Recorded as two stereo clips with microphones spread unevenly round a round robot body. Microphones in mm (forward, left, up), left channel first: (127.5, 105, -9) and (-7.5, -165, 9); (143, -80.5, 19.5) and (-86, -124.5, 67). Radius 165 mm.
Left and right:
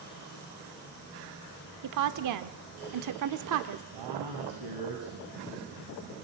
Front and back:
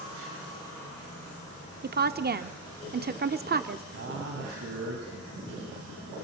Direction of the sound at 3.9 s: 135° right.